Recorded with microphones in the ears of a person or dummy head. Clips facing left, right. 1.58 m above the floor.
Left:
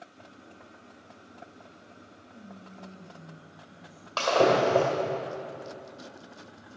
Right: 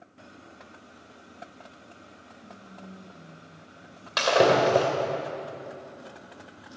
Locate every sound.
2.3 s whispering: 85° left, 1.6 m
4.2 s breaking glass: 25° right (ahead or behind), 2.5 m